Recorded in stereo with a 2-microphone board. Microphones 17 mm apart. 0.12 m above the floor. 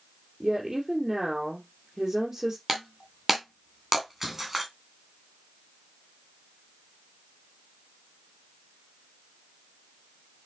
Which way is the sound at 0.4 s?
10° right (ahead or behind).